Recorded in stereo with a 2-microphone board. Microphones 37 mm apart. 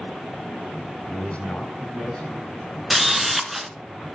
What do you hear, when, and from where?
1.1 s a man speaking: 35° left (ahead or behind), 1.9 m; by 2.8 s 25° left (ahead or behind), 3.5 m
2.9 s a camera shutter: centre (ahead or behind), 0.7 m